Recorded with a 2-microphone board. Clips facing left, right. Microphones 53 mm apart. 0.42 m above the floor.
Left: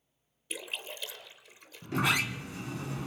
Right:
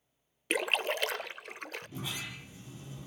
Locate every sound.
0.5 s a splash: 60° right (ahead or behind), 0.6 m
1.8 s a sliding door: 80° left, 1.2 m